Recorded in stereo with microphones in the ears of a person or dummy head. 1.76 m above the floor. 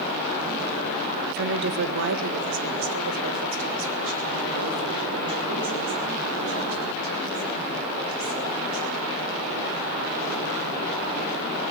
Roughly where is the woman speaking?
Right.